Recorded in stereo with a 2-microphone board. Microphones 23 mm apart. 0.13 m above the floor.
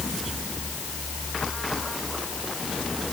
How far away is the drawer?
I don't hear a drawer.